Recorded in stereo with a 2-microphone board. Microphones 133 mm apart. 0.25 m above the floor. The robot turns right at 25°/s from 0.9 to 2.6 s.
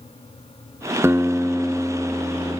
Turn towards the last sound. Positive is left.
turn(degrees=20)